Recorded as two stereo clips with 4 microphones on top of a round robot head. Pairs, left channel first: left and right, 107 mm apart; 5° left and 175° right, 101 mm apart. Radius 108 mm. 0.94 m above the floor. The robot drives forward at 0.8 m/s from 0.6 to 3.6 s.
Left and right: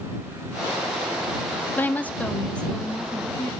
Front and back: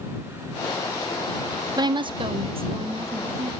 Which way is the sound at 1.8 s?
155° left.